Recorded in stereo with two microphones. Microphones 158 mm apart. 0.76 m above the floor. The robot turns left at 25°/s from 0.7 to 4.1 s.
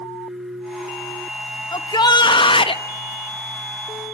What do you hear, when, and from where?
1.7 s a shout: 25° left (ahead or behind), 0.5 m; by 2.8 s 35° left (ahead or behind), 0.5 m